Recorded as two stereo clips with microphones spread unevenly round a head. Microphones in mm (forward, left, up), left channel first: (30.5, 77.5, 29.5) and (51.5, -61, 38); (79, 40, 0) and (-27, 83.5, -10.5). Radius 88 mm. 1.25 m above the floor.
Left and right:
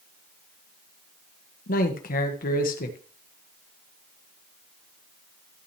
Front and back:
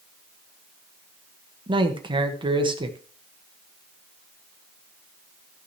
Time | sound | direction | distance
1.7 | a man speaking | 115° left | 1.6 m